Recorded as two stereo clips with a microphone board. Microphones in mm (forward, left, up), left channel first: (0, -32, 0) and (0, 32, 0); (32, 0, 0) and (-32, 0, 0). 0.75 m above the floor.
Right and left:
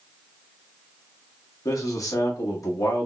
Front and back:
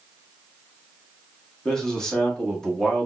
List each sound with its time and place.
1.6 s a man speaking: 80° right, 1.2 m